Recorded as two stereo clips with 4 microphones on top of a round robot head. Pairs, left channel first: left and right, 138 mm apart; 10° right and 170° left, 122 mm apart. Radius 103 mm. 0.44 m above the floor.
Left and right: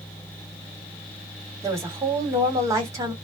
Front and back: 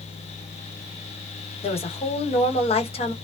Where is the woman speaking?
25° right, 1.8 m.